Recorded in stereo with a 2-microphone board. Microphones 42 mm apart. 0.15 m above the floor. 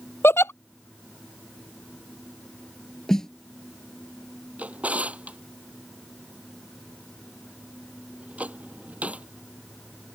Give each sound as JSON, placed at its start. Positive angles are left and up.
{"t": 0.2, "sound": "a giggle", "side_deg": 75}
{"t": 3.1, "sound": "a snare drum", "side_deg": 10}
{"t": 4.6, "sound": "a drawer", "side_deg": -35}